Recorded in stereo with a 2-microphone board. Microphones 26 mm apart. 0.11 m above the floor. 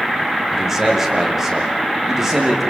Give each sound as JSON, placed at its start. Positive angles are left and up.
{"t": 0.5, "sound": "a man speaking", "side_deg": -15, "distance_m": 7.0}